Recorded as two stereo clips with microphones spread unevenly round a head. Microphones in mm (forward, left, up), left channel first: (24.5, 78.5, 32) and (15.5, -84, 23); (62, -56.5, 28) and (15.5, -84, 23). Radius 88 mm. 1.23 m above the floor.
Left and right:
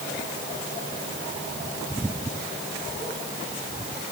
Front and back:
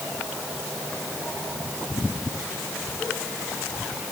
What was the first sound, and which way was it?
Only background noise.